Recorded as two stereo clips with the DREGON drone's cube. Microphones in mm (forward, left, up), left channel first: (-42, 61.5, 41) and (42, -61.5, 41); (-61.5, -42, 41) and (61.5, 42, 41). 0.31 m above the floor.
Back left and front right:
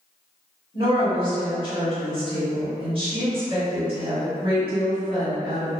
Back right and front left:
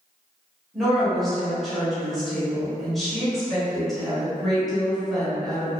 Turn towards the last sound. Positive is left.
turn(degrees=-55)